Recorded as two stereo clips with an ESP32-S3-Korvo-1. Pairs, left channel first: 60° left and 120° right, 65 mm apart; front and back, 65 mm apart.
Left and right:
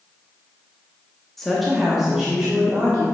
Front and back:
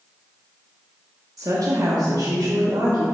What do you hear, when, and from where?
1.4 s a woman speaking: 145° left, 1.2 m; by 3.0 s 170° left, 1.9 m